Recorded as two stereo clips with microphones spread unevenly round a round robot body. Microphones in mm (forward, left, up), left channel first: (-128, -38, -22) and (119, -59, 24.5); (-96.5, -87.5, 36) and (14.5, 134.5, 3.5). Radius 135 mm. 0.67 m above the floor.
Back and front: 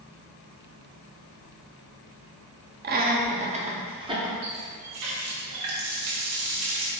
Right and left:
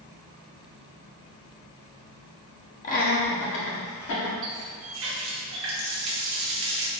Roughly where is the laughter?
Ahead right.